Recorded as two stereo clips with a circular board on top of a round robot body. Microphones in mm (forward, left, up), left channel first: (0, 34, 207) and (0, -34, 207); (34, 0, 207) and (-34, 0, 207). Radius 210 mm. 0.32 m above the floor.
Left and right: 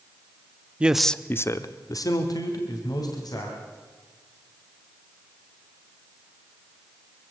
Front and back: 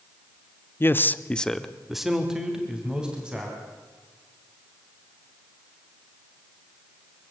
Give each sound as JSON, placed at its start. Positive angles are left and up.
{"t": 0.8, "sound": "a man speaking", "azimuth_deg": -30, "distance_m": 1.0}